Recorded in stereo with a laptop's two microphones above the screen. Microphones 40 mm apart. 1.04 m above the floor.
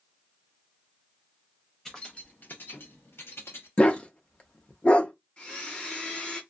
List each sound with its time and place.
1.9 s keys jangling: 15° left (ahead or behind), 0.7 m; by 3.7 s 85° left, 1.2 m
3.8 s a dog barking: 30° left (ahead or behind), 0.6 m
5.4 s a blender: 30° left (ahead or behind), 1.5 m